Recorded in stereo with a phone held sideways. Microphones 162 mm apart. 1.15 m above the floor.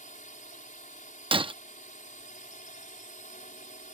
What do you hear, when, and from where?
0.0 s a drone: 55° left (ahead or behind)
1.3 s breaking glass: 30° right (ahead or behind)